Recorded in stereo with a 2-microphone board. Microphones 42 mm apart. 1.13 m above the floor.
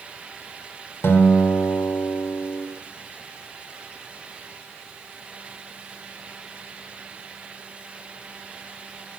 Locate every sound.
1.0 s a guitar: 85° left, 4 m